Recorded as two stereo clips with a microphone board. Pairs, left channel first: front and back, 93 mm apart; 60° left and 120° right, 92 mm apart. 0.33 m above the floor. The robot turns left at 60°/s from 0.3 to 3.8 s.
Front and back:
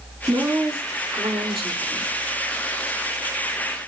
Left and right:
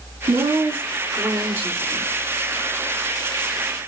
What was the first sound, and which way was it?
A woman speaking, 105° right.